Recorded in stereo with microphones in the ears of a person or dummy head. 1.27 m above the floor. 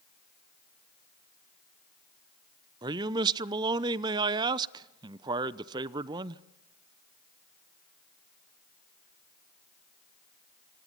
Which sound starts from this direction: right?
A man speaking, at 2.8 s.